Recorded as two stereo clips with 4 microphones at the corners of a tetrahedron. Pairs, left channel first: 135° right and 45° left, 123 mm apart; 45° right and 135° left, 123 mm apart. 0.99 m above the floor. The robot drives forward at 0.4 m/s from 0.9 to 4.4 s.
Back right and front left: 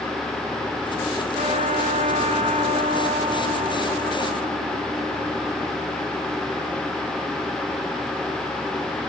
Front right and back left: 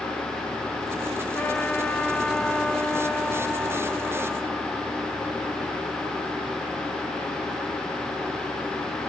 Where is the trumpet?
30° left, 2.5 m; by 5.9 s 50° left, 1.6 m.